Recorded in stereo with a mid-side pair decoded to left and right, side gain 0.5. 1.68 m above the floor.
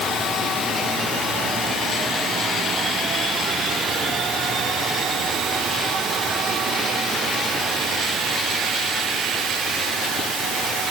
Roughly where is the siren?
I don't hear a siren.